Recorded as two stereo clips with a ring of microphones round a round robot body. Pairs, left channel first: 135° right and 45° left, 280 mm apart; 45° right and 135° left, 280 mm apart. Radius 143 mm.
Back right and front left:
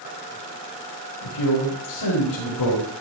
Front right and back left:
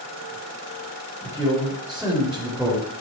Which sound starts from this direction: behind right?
A man speaking, at 1.2 s.